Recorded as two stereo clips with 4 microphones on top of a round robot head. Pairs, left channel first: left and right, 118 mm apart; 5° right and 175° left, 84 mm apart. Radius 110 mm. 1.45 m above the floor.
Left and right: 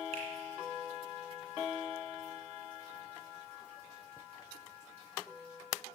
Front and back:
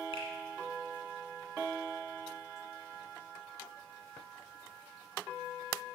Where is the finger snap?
40° right, 2 m.